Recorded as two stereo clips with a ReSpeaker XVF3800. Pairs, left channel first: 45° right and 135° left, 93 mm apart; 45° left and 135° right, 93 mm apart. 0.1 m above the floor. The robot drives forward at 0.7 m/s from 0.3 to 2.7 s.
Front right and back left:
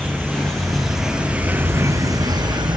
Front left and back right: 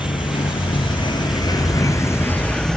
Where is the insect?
35° left, 1.5 m; by 2.8 s 125° left, 1.1 m.